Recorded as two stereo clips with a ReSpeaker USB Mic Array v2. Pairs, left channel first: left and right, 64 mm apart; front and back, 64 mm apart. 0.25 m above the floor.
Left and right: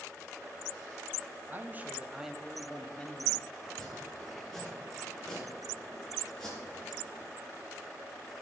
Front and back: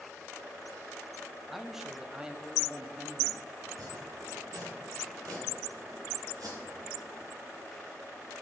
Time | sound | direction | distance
1.5 | a man speaking | 95° right | 1.0 m
3.6 | chopping | 175° left | 4 m